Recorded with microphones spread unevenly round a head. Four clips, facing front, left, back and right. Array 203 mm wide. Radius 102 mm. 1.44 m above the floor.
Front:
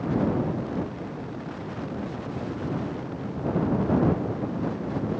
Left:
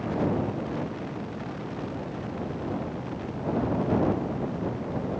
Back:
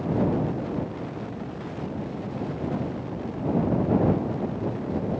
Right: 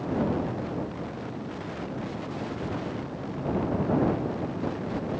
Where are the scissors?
No scissors in this recording.